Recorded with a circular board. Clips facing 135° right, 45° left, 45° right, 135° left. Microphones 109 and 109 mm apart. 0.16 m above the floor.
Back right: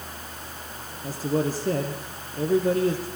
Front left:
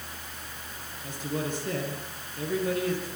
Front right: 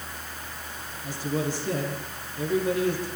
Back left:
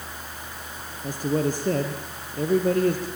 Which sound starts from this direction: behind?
A man speaking, at 1.0 s.